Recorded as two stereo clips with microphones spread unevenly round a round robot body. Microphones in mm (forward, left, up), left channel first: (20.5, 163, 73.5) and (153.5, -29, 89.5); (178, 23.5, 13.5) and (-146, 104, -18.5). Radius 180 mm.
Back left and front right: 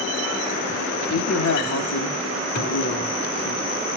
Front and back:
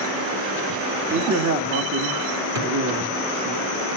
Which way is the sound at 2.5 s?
150° left.